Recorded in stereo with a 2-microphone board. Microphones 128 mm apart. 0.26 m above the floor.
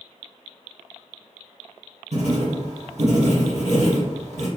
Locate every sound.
2.1 s writing: 65° right (ahead or behind), 1.7 m